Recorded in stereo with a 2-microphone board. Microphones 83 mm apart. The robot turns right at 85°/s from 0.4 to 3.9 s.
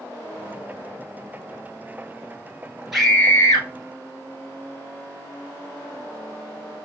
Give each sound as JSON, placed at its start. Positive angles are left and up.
{"t": 2.9, "sound": "a scream", "azimuth_deg": -5, "distance_m": 1.7}